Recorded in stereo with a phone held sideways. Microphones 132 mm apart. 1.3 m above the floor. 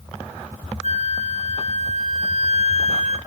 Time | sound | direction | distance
0.8 | a flute | 55° left (ahead or behind) | 1.0 m